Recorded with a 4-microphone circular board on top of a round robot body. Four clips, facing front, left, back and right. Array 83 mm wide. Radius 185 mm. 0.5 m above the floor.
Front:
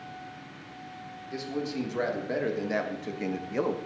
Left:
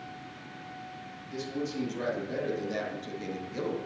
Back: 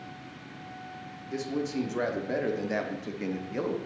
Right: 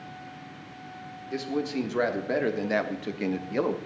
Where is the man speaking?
105° right, 1.9 m; by 3.8 s 70° right, 1.1 m.